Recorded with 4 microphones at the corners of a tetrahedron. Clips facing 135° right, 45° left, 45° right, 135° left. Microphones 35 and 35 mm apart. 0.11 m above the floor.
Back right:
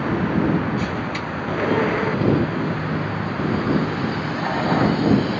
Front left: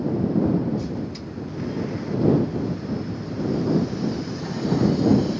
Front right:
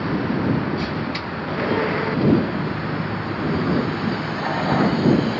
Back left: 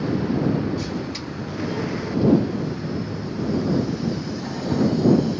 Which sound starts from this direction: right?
A vehicle, at 0.0 s.